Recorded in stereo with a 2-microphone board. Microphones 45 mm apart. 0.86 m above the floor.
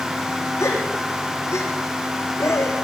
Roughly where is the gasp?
Left.